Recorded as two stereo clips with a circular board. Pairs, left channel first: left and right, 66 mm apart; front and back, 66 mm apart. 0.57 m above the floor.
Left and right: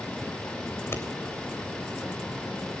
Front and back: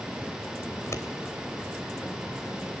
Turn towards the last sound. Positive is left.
turn(degrees=40)